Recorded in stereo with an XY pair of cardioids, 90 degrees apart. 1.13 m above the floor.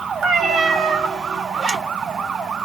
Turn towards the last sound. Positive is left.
turn(degrees=-55)